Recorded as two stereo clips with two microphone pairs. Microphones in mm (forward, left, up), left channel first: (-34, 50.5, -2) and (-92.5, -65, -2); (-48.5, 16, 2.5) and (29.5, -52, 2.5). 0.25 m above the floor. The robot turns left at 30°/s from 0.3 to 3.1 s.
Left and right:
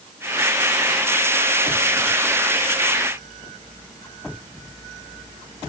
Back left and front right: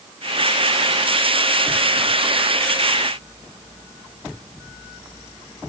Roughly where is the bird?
No bird in this recording.